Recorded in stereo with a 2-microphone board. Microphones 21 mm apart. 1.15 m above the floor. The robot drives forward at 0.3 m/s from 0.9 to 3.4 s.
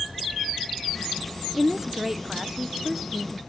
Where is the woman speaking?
10° right (ahead or behind), 0.6 m.